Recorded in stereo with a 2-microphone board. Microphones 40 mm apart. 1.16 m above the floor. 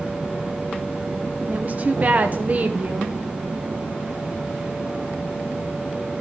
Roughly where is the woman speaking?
Right.